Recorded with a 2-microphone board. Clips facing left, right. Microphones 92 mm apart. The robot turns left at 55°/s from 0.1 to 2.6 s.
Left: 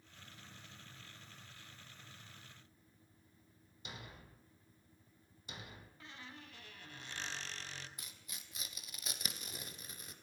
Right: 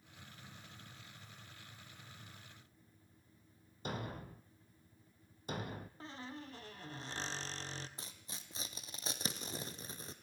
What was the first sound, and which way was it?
A thud, 45° right (ahead or behind).